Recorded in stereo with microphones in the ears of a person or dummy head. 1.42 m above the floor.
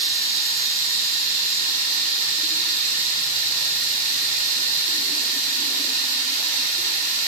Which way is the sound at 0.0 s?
35° right (ahead or behind).